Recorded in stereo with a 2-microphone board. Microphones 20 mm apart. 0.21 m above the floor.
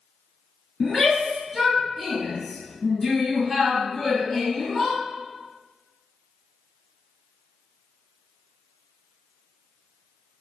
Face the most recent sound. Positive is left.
turn(degrees=5)  # may be behind; listen again after turning